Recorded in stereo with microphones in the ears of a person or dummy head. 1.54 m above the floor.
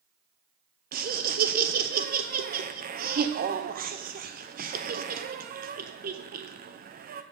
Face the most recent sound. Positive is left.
turn(degrees=-40)  # may be behind; listen again after turning